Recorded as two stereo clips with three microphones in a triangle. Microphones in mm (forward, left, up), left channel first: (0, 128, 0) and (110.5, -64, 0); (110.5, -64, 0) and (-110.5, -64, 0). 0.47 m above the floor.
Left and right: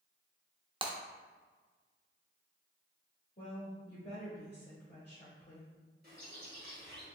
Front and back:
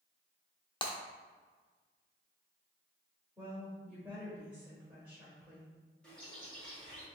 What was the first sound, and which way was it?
Breaking glass, 30° right.